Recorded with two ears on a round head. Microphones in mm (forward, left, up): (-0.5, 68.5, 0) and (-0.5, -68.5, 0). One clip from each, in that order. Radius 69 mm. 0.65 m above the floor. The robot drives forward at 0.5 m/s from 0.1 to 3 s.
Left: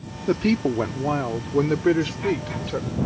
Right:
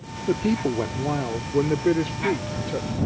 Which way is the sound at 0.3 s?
40° left (ahead or behind).